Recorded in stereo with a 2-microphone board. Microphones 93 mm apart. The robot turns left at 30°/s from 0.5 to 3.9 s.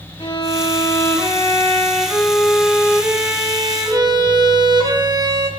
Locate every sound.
0.2 s a violin: 55° left, 4 m; by 5.5 s 45° right, 4 m